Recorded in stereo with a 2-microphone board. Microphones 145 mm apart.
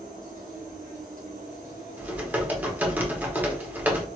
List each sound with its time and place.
0.0 s an insect: 70° right (ahead or behind), 1.4 m
2.0 s typing on a keyboard: 10° right (ahead or behind), 0.9 m